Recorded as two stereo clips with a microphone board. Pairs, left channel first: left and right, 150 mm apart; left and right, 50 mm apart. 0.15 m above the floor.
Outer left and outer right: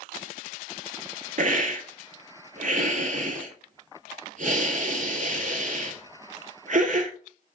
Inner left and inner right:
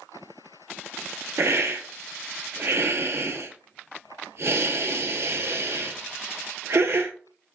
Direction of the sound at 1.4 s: 60° right (ahead or behind).